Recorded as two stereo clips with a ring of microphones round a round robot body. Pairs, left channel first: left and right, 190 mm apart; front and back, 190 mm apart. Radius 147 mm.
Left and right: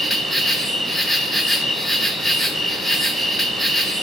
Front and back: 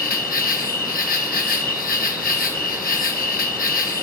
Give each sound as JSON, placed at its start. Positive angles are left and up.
{"t": 0.0, "sound": "an insect", "azimuth_deg": 0, "distance_m": 1.4}